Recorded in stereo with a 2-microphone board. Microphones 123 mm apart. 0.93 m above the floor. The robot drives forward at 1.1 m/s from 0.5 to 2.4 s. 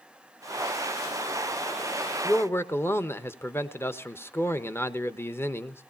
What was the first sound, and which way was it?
A man speaking, 15° left (ahead or behind).